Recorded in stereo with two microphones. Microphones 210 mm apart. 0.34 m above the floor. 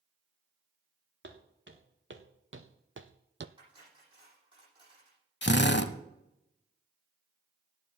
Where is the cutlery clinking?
20° right (ahead or behind), 9 m.